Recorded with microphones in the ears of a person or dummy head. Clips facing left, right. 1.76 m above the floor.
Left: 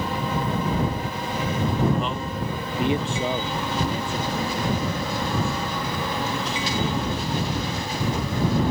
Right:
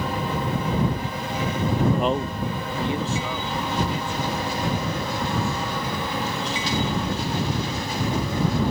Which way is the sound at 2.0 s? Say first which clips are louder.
Right 4 dB; 45° right (ahead or behind).